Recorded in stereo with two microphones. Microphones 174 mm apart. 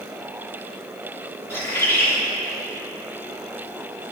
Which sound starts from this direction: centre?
A bird, at 1.5 s.